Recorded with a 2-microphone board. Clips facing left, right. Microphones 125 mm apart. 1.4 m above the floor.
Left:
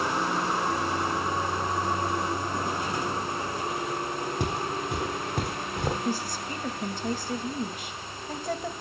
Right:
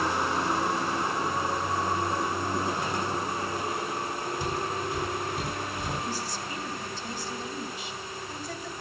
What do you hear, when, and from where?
4.4 s footsteps: 70° left (ahead or behind), 3.5 m
6.0 s a woman speaking: 55° left (ahead or behind), 2 m